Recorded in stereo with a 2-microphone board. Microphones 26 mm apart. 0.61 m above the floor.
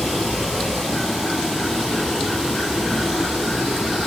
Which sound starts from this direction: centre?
Running water, at 0.0 s.